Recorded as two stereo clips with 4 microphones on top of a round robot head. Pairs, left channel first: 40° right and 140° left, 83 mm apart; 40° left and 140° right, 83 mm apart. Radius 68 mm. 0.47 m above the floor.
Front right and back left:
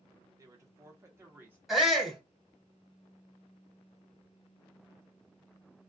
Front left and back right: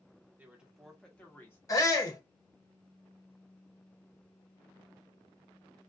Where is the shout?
55° left, 1.9 m.